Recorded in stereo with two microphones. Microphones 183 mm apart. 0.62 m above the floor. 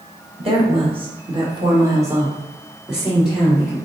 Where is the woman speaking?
30° right (ahead or behind), 1.5 m; by 3.8 s 5° left (ahead or behind), 2.0 m.